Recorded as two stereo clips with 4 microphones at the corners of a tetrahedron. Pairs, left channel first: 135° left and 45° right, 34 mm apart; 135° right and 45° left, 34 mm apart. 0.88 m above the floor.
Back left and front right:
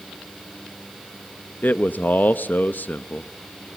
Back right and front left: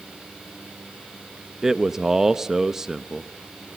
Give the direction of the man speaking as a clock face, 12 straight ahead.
8 o'clock.